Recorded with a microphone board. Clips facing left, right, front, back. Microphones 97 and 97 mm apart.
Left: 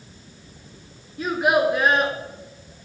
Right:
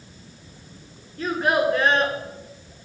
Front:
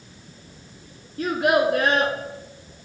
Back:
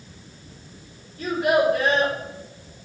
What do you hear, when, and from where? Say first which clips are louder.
1.2 s a child speaking: left 2 dB, even; 10° left, 1.6 m